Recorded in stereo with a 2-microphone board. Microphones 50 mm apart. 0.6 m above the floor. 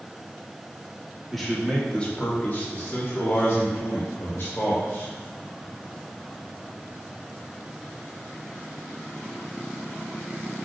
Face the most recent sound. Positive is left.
turn(degrees=50)  # may be behind; listen again after turning